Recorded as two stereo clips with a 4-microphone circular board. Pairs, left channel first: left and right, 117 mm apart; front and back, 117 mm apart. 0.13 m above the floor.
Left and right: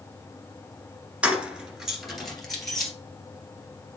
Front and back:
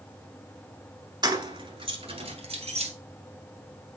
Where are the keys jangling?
165° right, 1.3 m; by 2.9 s 175° left, 2.5 m.